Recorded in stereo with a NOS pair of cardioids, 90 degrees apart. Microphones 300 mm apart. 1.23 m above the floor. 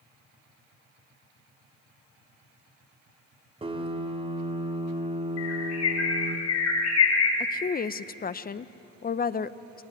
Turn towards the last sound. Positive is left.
turn(degrees=30)